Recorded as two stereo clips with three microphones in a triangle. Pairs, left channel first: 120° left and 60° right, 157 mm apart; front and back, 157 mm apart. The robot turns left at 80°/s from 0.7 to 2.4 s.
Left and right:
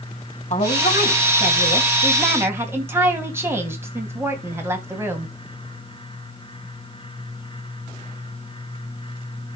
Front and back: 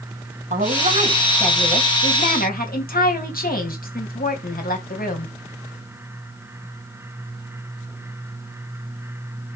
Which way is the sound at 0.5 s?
150° left.